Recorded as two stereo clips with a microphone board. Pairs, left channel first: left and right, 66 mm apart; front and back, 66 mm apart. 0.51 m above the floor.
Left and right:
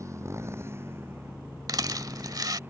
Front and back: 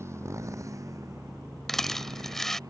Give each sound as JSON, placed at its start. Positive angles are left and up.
{"t": 0.0, "sound": "a motorcycle", "azimuth_deg": -130}
{"t": 1.7, "sound": "a rattle", "azimuth_deg": -85}